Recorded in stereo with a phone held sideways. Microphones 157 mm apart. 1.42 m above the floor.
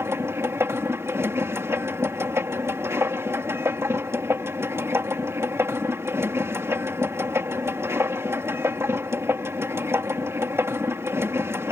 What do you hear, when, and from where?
0.0 s a machine running: 15° right (ahead or behind)